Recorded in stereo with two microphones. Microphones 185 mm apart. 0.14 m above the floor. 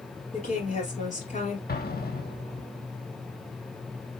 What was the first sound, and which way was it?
A woman speaking, 40° left (ahead or behind).